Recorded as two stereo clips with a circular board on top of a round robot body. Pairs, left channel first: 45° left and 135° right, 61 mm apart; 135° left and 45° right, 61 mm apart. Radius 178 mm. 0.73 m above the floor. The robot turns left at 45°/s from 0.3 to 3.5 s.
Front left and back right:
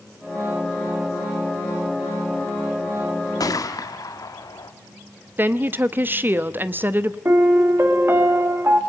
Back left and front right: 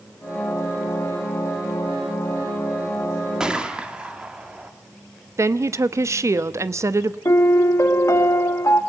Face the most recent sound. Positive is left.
turn(degrees=175)